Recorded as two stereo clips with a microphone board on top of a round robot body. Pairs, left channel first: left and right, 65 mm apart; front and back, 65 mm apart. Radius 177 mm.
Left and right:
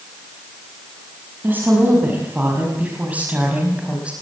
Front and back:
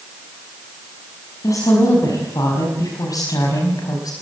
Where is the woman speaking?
30° right, 6 m; by 4.1 s 15° right, 4.5 m.